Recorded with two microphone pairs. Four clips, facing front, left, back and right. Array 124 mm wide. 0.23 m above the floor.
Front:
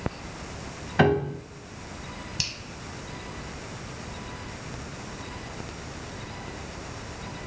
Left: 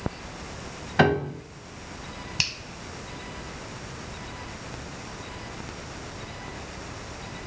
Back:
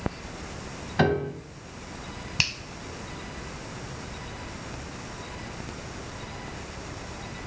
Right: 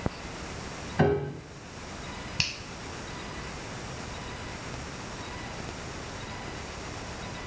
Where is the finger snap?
155° left, 0.9 m.